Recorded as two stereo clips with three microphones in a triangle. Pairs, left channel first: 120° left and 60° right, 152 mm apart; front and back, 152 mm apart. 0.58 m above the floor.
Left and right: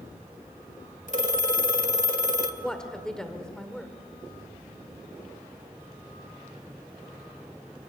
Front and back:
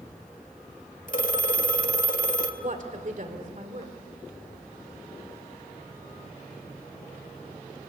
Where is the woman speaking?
155° right, 2 m.